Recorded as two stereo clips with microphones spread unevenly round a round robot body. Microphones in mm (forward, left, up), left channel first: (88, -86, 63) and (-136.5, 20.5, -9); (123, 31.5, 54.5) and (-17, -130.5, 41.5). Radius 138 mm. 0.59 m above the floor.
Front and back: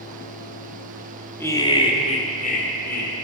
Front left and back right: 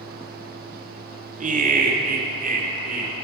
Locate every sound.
1.4 s laughter: 125° right, 1.4 m; by 3.1 s 85° right, 2.5 m